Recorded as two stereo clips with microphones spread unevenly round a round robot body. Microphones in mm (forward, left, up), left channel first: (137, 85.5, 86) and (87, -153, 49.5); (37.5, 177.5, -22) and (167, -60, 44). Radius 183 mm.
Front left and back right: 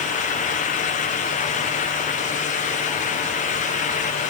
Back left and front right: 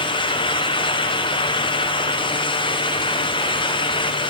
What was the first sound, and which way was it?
Only background noise.